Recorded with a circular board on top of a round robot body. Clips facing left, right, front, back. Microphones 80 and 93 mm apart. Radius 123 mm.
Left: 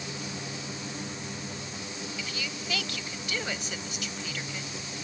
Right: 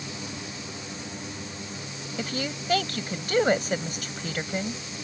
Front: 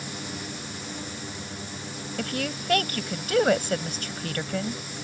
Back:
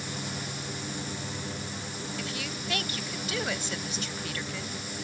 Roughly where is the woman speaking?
Ahead right.